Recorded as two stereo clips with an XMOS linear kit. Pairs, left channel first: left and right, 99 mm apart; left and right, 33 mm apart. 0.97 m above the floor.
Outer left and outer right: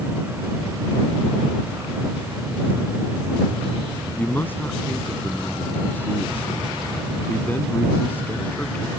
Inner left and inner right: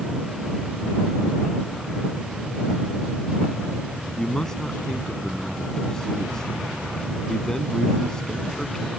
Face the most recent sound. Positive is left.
turn(degrees=20)  # may be behind; listen again after turning